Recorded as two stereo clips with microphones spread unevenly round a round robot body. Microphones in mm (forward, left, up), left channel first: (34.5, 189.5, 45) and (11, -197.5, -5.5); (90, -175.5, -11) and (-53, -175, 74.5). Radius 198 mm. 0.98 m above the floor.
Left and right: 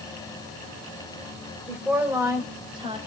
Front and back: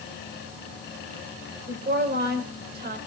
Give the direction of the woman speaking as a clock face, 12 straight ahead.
6 o'clock.